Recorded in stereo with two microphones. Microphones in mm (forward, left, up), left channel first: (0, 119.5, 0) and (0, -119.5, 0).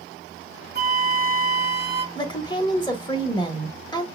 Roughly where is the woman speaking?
Centre.